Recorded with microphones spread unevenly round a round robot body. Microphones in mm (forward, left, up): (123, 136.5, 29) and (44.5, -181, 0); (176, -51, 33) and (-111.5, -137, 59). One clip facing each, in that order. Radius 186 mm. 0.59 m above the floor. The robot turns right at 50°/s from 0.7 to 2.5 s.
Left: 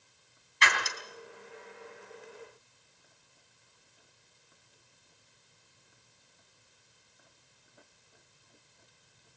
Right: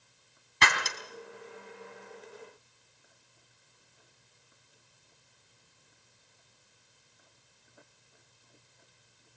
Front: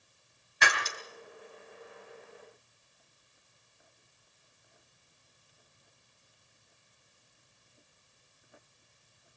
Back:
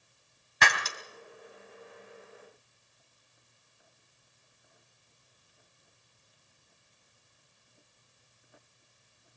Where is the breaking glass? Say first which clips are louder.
Right 2 dB, back 1 dB; 155° right, 3 m; by 1.0 s 140° right, 3 m.